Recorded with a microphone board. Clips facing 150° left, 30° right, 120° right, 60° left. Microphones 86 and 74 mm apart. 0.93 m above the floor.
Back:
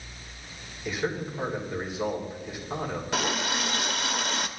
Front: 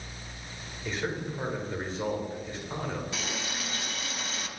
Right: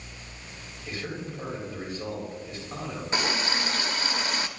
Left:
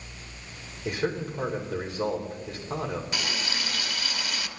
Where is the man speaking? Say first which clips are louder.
Back 3 dB, left 7 dB; 70° left, 4.5 m.